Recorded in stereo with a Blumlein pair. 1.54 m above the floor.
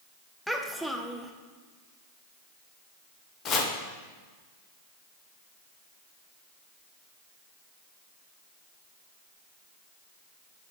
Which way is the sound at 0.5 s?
Straight ahead.